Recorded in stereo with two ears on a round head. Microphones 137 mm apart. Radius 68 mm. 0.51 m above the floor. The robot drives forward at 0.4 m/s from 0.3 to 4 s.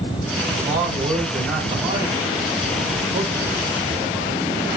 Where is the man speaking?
35° right (ahead or behind), 4.5 m; by 4.5 s 25° right (ahead or behind), 5.5 m.